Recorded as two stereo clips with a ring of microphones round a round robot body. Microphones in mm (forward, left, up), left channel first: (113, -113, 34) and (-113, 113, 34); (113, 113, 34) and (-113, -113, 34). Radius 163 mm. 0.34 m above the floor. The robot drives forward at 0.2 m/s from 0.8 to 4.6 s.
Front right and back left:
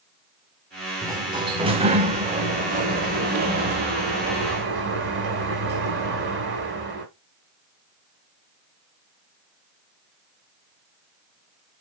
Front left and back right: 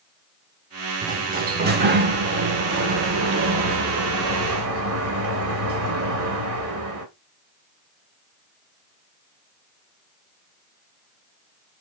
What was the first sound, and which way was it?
A sliding door, 160° right.